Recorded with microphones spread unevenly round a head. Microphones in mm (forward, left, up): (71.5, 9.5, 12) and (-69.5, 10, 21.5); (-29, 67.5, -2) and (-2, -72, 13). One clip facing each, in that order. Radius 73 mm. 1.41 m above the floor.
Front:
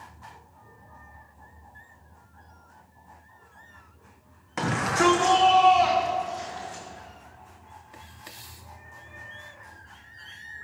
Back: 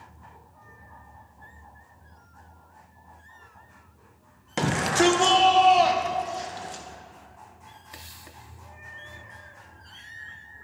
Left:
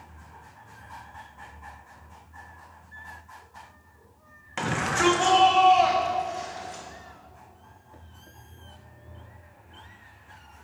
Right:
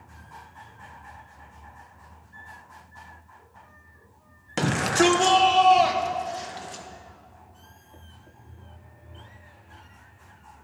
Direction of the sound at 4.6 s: 120° right.